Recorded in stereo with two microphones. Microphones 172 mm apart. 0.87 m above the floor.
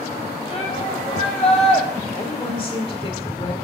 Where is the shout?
35° left (ahead or behind), 5 m.